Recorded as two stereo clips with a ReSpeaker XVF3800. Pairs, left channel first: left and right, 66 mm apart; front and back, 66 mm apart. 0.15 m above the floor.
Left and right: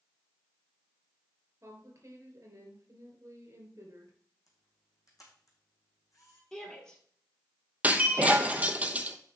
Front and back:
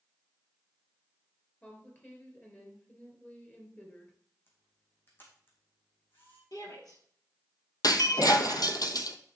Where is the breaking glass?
20° right, 0.8 m.